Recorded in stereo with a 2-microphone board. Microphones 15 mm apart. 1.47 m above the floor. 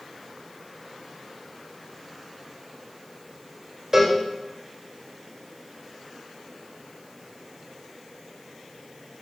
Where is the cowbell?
30° right (ahead or behind), 1.0 m.